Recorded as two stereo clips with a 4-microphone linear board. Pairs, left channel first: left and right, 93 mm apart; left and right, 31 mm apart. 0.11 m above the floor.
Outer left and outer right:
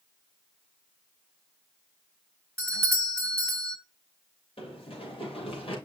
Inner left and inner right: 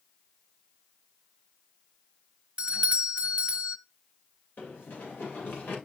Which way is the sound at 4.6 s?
85° left.